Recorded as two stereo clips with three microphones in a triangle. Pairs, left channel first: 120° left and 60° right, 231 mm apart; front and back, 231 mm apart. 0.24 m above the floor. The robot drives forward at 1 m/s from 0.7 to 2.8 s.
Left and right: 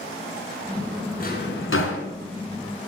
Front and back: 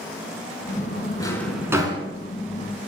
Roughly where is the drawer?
Left.